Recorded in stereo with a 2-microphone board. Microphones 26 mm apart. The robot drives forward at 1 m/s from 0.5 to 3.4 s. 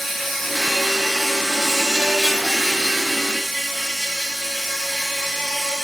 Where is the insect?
Centre (ahead or behind), 3 m.